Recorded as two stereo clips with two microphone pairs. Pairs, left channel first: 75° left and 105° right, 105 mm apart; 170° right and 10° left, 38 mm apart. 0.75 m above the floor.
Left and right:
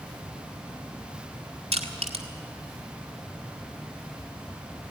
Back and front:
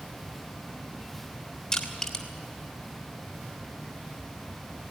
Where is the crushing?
95° right, 2 m.